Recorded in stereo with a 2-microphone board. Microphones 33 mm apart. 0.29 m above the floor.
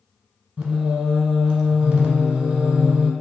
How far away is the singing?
About 0.6 m.